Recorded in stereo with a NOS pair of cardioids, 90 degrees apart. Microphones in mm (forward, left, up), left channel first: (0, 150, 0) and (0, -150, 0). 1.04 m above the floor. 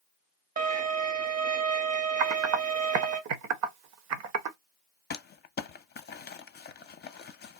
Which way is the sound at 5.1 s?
35° left.